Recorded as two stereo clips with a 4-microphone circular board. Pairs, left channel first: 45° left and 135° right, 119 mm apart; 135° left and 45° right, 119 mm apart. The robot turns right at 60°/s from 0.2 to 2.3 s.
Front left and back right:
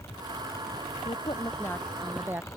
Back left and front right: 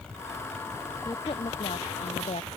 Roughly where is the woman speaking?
Left.